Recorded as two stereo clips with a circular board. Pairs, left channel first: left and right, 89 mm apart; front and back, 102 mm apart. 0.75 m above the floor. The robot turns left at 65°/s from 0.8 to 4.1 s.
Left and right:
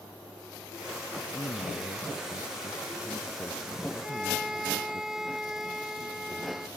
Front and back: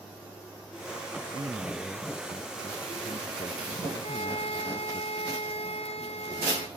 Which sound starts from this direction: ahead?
A violin, at 4.0 s.